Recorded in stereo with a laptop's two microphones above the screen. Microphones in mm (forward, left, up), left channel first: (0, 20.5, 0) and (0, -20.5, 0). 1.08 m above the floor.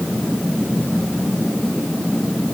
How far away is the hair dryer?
I don't hear a hair dryer.